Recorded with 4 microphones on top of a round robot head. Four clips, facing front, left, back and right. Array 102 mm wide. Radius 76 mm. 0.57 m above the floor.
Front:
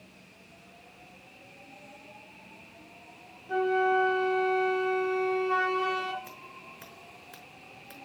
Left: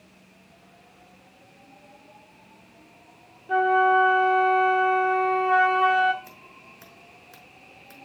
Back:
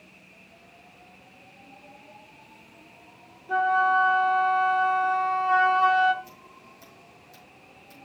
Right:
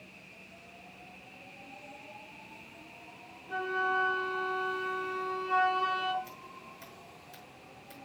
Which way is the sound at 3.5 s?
110° left.